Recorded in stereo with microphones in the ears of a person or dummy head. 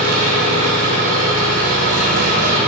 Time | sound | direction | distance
0.0 | an engine running | 45° right (ahead or behind) | 1.8 m